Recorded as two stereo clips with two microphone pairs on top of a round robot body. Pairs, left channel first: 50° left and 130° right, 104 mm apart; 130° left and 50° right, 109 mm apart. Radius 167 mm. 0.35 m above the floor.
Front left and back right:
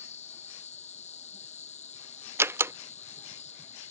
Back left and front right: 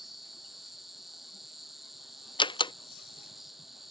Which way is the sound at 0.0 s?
40° left.